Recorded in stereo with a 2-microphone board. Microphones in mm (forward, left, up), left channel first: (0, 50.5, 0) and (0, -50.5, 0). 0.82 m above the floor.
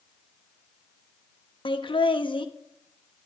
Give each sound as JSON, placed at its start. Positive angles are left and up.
{"t": 1.6, "sound": "laughter", "side_deg": 55, "distance_m": 0.9}